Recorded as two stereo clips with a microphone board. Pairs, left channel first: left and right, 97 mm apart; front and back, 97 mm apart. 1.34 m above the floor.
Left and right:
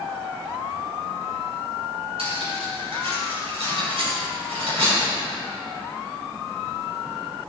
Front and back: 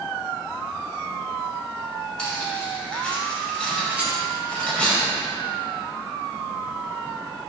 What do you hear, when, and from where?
2.2 s cutlery clinking: 80° right, 4.5 m
3.9 s a rattle: 100° right, 3.5 m